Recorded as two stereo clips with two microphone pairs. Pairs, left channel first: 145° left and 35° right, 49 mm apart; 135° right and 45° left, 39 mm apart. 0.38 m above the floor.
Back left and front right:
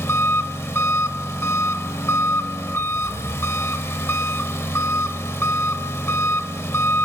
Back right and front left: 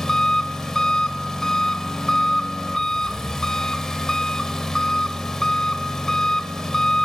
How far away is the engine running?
About 0.7 m.